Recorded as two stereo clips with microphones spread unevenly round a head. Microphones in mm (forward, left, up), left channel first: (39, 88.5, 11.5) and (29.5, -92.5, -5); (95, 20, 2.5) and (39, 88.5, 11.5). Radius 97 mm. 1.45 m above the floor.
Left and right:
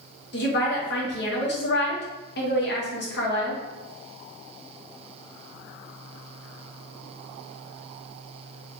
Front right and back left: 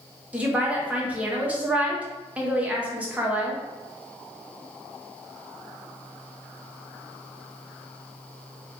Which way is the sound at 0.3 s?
50° left.